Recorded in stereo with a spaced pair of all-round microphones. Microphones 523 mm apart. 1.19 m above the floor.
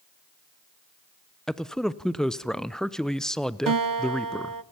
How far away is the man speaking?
About 0.6 m.